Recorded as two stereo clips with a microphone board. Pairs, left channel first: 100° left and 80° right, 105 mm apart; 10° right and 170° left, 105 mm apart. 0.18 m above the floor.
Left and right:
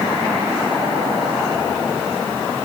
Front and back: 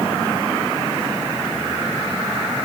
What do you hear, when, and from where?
Only background noise.